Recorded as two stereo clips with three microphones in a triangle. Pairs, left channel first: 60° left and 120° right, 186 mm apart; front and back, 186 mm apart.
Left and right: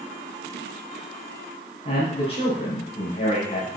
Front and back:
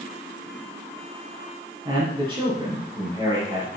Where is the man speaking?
115° left, 5.5 m.